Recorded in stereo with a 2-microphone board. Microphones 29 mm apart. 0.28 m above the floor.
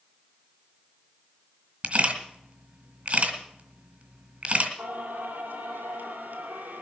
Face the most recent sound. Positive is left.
turn(degrees=-70)  # may be behind; listen again after turning